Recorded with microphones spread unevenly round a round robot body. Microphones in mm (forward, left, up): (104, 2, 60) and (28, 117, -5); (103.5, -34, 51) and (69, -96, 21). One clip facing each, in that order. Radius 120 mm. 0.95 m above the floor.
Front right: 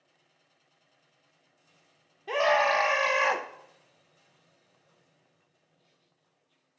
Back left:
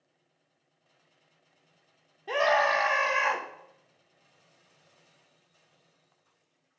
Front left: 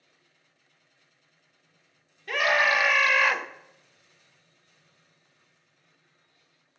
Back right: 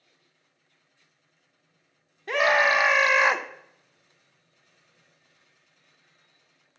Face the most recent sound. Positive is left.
turn(degrees=-120)